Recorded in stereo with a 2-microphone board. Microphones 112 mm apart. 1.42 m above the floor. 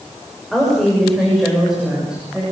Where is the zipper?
No zipper in this recording.